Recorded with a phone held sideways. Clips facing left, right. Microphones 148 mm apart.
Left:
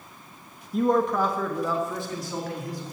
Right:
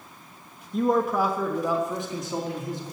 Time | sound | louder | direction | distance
0.7 | a man speaking | even | 5° left (ahead or behind) | 1.2 m